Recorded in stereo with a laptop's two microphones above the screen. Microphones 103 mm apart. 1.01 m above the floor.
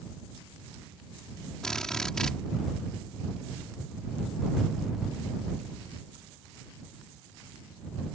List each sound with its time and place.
1.6 s a drill: 5° left (ahead or behind)